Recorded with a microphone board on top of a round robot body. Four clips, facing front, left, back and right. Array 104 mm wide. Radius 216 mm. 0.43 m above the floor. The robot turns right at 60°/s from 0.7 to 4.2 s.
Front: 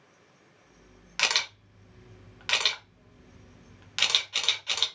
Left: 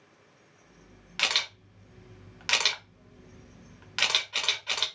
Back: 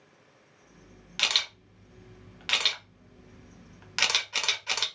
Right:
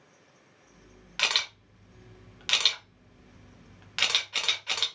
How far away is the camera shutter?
About 1.3 m.